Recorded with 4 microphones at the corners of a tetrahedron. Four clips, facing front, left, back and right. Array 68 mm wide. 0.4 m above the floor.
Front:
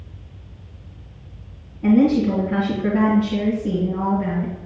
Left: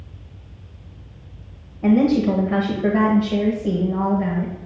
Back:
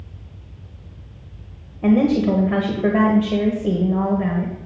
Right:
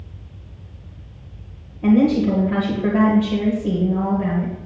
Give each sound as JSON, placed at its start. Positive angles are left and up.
{"t": 1.8, "sound": "a woman speaking", "azimuth_deg": 165, "distance_m": 1.5}